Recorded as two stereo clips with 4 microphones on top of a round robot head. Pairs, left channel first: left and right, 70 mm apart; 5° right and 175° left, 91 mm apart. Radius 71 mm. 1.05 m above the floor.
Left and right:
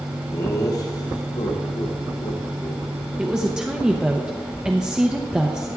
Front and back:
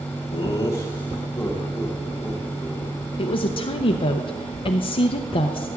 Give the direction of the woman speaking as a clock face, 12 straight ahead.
12 o'clock.